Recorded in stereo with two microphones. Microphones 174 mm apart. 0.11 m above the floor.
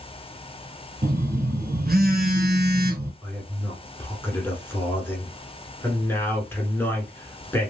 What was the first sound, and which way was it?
A phone buzzing, 60° right (ahead or behind).